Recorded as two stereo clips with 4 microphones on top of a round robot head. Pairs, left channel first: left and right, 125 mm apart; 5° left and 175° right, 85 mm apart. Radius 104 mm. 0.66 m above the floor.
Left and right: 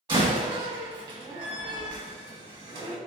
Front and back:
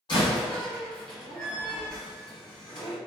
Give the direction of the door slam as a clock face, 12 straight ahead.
1 o'clock.